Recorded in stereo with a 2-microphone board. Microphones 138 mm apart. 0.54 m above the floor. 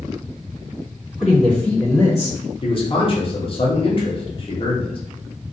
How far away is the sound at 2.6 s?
About 0.8 m.